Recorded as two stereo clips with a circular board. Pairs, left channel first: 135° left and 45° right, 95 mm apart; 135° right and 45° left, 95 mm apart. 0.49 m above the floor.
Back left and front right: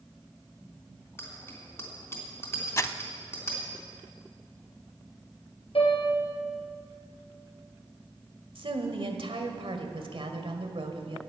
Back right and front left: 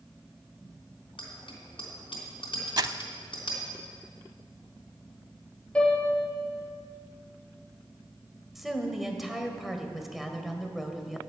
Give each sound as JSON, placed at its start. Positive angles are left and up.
{"t": 1.2, "sound": "a bicycle bell", "azimuth_deg": -160, "distance_m": 3.0}
{"t": 2.8, "sound": "crumpling", "azimuth_deg": 80, "distance_m": 0.5}
{"t": 5.8, "sound": "a piano", "azimuth_deg": 145, "distance_m": 3.5}
{"t": 8.6, "sound": "a woman speaking", "azimuth_deg": -40, "distance_m": 1.7}